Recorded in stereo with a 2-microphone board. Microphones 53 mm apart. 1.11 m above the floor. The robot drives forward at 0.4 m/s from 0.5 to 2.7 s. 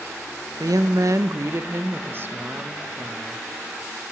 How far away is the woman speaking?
About 0.5 m.